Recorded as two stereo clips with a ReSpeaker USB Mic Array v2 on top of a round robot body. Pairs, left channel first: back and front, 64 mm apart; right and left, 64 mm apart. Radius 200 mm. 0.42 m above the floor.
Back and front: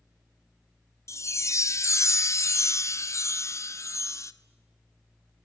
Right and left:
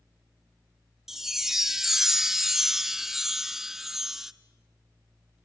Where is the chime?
175° left, 1.1 m.